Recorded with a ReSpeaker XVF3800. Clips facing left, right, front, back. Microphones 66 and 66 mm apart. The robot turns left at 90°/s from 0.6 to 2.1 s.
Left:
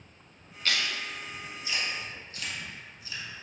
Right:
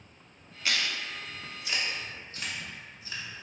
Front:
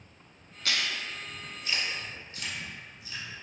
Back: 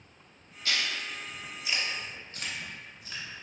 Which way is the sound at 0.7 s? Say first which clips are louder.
Even, even; 10° right.